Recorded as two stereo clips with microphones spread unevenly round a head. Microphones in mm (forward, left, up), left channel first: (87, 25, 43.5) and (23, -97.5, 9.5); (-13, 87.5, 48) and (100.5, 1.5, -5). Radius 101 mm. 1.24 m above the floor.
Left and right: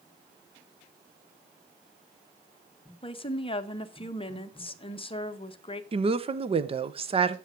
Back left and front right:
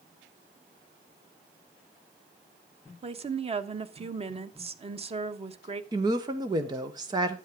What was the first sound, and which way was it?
A woman speaking, 10° left.